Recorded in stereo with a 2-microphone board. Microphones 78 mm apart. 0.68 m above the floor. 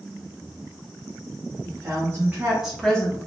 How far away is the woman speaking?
About 0.9 m.